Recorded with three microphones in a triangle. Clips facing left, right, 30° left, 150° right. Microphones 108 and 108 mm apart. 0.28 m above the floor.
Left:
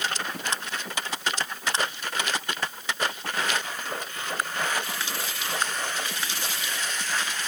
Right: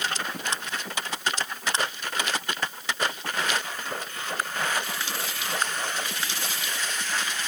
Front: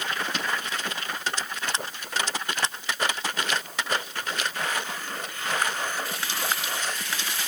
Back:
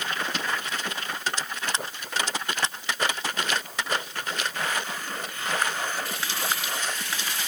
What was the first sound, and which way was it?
Only background noise.